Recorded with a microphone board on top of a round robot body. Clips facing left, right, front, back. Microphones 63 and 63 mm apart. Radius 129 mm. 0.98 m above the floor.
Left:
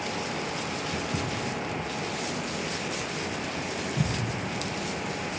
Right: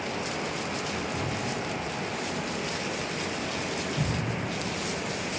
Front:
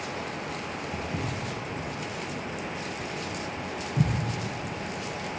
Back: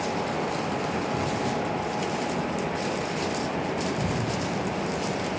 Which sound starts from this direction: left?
Footsteps, at 0.9 s.